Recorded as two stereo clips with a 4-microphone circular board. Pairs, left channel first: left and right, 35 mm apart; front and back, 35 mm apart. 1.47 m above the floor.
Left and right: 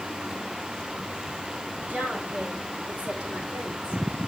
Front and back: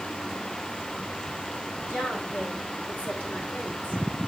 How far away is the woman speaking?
About 6.5 m.